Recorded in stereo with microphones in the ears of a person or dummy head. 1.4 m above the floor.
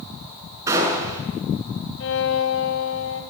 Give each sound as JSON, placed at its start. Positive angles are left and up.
{"t": 0.7, "sound": "a gunshot", "side_deg": -15, "distance_m": 7.0}
{"t": 2.0, "sound": "a violin", "side_deg": 35, "distance_m": 1.2}